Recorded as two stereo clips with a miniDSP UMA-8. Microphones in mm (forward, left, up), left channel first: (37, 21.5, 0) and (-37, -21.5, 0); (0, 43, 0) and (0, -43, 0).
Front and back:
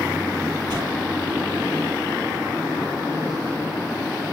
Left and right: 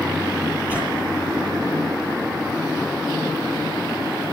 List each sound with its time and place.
0.7 s a whoosh: 165° right, 8.5 m